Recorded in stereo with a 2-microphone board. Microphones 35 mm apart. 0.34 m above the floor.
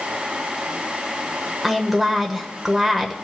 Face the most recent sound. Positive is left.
turn(degrees=0)  # may be behind; listen again after turning